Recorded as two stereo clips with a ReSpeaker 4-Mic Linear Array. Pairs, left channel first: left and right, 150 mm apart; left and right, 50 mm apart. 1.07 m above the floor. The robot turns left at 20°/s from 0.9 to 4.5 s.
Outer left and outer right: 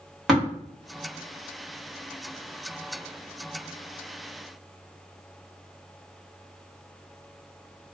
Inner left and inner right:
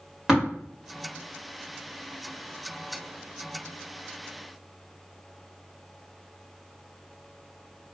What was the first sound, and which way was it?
Tapping, centre (ahead or behind).